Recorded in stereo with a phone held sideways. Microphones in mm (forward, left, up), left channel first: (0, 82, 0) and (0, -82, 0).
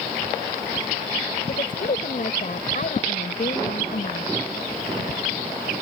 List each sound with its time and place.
1.5 s a woman speaking: 55° left (ahead or behind)